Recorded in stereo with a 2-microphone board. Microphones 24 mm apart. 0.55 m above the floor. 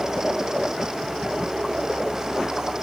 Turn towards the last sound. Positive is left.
No sound to turn to.